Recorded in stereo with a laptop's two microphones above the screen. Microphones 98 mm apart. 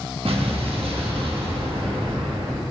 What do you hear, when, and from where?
0.2 s an explosion: 75° right (ahead or behind), 1.4 m